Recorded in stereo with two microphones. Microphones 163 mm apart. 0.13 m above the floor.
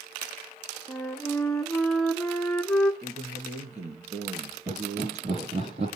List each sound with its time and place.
0.9 s a flute: 5° left (ahead or behind), 1.8 m
3.0 s a man speaking: 45° right (ahead or behind), 2.5 m
4.7 s laughter: 45° right (ahead or behind), 4.5 m